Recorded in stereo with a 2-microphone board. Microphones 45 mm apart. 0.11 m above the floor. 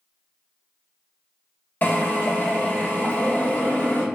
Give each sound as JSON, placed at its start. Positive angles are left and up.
{"t": 1.8, "sound": "a drill", "side_deg": 45, "distance_m": 1.1}